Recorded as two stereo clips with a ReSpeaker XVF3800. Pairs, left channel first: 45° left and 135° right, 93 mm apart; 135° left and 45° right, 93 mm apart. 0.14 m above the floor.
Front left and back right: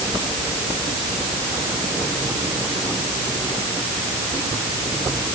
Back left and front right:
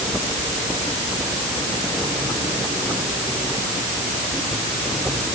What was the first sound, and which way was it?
Only background noise.